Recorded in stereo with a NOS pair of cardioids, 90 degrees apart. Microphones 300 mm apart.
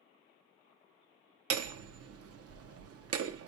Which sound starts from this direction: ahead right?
Hammering, at 1.5 s.